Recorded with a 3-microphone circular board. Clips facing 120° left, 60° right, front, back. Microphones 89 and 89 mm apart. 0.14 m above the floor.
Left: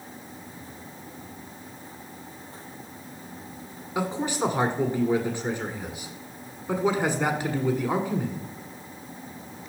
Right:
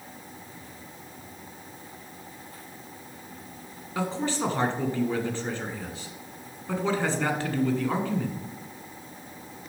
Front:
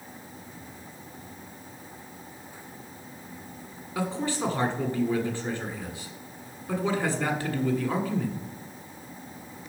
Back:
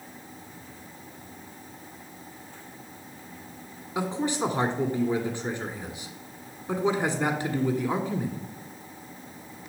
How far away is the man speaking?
About 1.3 m.